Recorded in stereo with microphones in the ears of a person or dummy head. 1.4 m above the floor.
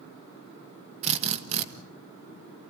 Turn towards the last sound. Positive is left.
turn(degrees=-35)  # may be behind; listen again after turning